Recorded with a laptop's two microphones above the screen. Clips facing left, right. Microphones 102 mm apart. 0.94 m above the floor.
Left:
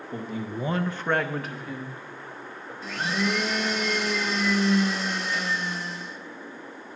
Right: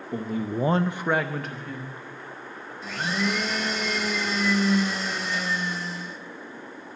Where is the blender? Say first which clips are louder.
Even; centre (ahead or behind), 0.7 m.